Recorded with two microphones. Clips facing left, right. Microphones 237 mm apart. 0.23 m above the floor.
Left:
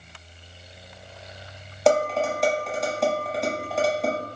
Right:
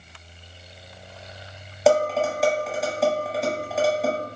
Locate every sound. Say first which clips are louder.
1.9 s dishes clattering: right 1 dB; centre (ahead or behind), 0.8 m